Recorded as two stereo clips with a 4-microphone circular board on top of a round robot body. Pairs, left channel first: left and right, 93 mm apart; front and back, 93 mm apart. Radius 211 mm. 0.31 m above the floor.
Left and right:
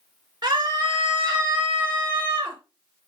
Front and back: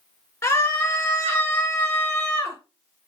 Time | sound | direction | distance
0.4 | a scream | 55° right | 2.5 m